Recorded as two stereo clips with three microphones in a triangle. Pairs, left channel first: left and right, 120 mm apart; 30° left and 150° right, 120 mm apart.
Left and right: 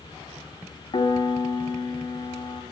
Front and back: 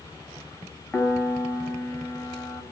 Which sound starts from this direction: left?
A piano, at 0.9 s.